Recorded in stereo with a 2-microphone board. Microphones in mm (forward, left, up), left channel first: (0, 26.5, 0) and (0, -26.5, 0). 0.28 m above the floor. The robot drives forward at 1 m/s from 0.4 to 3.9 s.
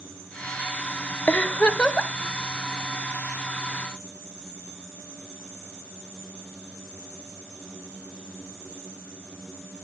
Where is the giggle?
25° left (ahead or behind), 0.6 m; by 2.1 s 15° left (ahead or behind), 1.0 m.